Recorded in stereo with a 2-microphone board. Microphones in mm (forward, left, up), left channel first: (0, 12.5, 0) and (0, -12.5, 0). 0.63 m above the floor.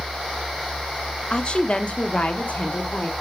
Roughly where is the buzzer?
No buzzer in this recording.